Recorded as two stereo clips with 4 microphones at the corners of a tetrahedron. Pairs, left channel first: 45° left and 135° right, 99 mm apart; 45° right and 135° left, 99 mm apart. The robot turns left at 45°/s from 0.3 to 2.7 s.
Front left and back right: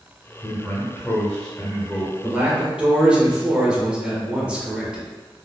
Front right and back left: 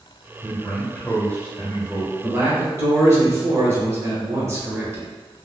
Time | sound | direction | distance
0.4 | a man speaking | 20° left | 1.3 m
2.2 | a man speaking | 175° left | 0.9 m